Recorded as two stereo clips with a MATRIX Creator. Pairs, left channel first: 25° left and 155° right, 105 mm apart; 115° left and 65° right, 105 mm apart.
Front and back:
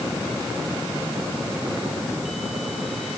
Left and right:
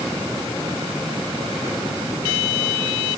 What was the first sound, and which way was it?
Only background noise.